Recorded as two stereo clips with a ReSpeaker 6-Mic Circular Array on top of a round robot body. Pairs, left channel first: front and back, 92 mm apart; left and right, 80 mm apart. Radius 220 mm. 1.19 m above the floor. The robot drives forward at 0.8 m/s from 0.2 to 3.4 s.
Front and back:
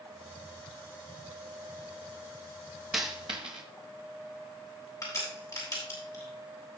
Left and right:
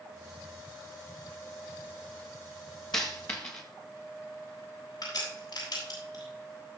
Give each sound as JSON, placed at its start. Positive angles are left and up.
{"t": 2.9, "sound": "a dropped coin", "azimuth_deg": 110, "distance_m": 0.6}
{"t": 5.0, "sound": "a crack", "azimuth_deg": 50, "distance_m": 7.5}